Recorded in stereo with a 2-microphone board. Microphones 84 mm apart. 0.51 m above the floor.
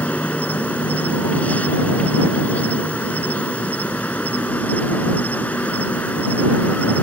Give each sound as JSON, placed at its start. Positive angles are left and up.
{"t": 0.0, "sound": "an insect", "side_deg": 20}